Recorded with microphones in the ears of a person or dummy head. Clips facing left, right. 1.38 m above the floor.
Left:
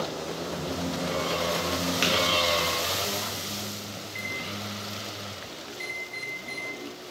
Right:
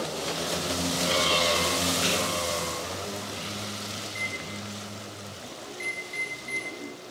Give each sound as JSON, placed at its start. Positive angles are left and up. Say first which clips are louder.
{"t": 2.0, "sound": "tapping", "louder": "left 2 dB", "side_deg": 65, "distance_m": 1.3}
{"t": 4.0, "sound": "a microwave", "louder": "even", "side_deg": 0, "distance_m": 1.7}